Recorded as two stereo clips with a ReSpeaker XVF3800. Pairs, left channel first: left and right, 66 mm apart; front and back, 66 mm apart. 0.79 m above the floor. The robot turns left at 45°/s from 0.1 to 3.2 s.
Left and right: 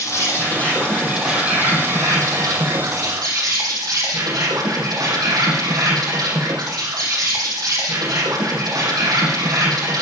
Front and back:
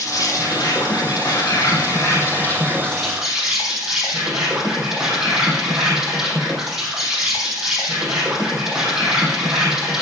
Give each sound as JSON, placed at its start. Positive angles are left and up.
{"t": 0.0, "sound": "an insect", "azimuth_deg": 40, "distance_m": 5.0}